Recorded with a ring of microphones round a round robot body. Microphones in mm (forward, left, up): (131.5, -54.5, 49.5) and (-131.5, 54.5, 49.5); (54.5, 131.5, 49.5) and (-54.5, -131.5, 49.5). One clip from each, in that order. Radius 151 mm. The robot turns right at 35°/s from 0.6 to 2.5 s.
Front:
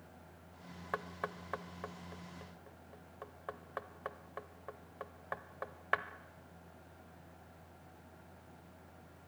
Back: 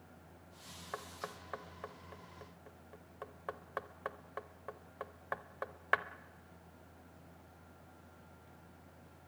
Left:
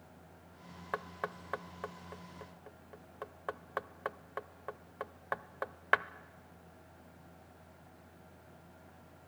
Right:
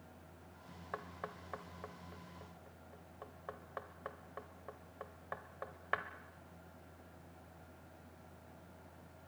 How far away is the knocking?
About 0.7 m.